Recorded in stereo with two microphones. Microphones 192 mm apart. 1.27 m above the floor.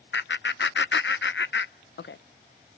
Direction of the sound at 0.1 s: 75° left (ahead or behind).